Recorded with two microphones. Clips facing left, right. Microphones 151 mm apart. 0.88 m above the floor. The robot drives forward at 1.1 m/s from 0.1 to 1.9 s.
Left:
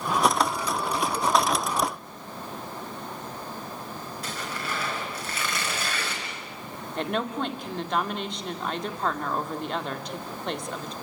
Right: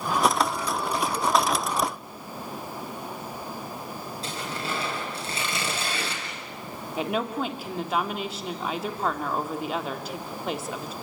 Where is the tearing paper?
25° right (ahead or behind), 6 m.